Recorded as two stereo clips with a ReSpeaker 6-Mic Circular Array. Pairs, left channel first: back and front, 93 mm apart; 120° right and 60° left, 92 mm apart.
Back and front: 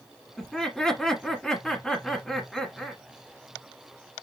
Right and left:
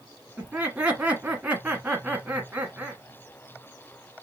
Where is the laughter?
110° left, 1.1 m.